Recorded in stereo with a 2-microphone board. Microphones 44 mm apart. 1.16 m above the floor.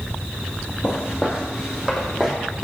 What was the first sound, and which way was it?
Footsteps, 20° right (ahead or behind).